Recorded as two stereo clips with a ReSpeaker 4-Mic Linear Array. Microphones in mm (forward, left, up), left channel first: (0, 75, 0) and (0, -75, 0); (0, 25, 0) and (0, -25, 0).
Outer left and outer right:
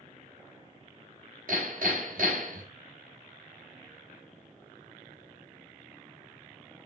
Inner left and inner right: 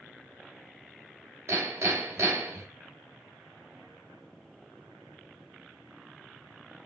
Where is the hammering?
65° right (ahead or behind), 4 m.